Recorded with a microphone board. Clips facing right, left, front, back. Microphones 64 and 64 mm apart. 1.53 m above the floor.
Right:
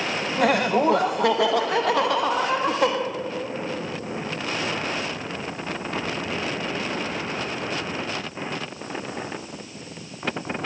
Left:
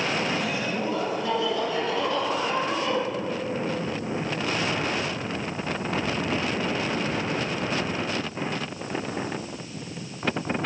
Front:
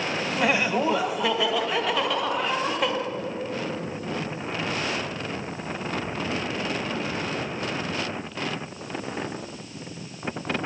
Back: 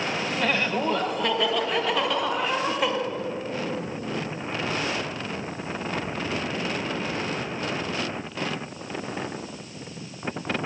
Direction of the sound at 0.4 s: 75° right.